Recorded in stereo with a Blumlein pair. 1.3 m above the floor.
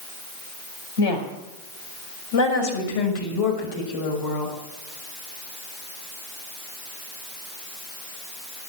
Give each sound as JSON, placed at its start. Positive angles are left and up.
{"t": 1.0, "sound": "a woman speaking", "azimuth_deg": 65, "distance_m": 5.5}